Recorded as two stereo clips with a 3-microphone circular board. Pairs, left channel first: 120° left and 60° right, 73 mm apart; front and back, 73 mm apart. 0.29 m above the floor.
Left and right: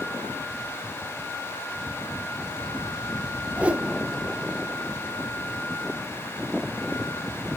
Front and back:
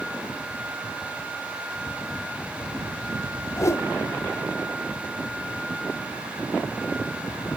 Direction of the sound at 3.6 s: 5° left.